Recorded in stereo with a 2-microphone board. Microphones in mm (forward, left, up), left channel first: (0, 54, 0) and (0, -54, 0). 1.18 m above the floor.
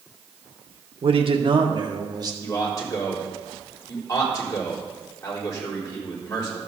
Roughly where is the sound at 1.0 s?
Right.